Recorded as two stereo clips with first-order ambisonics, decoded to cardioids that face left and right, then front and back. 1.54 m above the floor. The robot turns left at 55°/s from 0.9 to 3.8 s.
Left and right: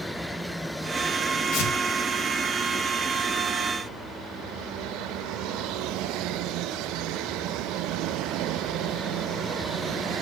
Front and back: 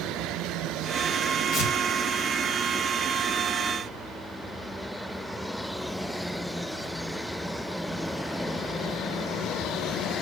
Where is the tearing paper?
60° left, 2 m; by 1.7 s 45° left, 2 m.